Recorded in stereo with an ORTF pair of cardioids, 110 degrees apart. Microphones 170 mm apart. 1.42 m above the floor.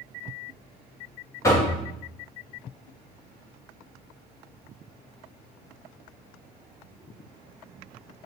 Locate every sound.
1.4 s knocking: 20° left, 0.9 m